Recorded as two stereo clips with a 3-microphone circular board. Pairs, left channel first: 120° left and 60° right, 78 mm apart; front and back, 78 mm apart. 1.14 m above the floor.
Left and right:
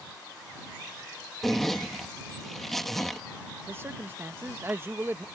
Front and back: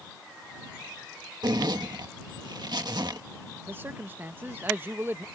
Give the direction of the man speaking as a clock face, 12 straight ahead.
4 o'clock.